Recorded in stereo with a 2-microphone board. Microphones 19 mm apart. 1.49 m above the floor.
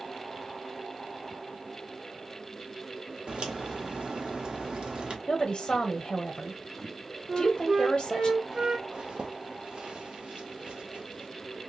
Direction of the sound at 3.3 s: 70° right (ahead or behind).